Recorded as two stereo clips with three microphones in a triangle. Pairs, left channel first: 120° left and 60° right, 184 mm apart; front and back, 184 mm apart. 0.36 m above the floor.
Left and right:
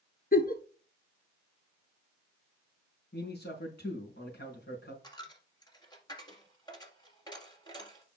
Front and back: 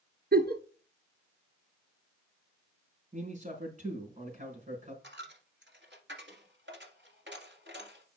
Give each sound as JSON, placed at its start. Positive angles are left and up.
{"t": 0.3, "sound": "a giggle", "azimuth_deg": 155, "distance_m": 0.8}
{"t": 3.1, "sound": "a man speaking", "azimuth_deg": 135, "distance_m": 4.5}
{"t": 5.0, "sound": "a dropped coin", "azimuth_deg": -175, "distance_m": 1.9}